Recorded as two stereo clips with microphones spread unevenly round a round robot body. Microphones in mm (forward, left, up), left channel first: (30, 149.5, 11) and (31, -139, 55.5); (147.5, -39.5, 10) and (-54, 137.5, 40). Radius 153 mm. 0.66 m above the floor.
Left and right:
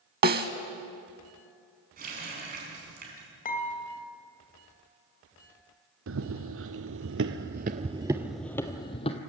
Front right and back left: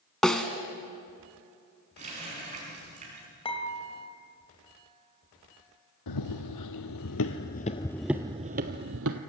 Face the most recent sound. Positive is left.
turn(degrees=165)